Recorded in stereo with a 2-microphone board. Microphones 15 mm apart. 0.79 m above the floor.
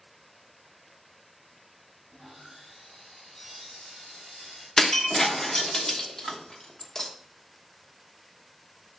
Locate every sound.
2.1 s sawing: 35° left (ahead or behind), 3.5 m
4.8 s breaking glass: 35° left (ahead or behind), 0.8 m